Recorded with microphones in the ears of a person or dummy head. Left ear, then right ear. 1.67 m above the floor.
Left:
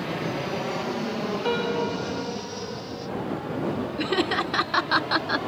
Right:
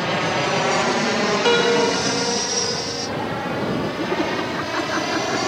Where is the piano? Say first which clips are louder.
Right 9 dB; 30° right (ahead or behind).